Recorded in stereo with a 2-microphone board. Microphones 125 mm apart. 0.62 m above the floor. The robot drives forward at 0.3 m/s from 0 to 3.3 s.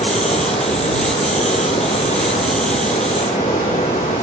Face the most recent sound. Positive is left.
turn(degrees=80)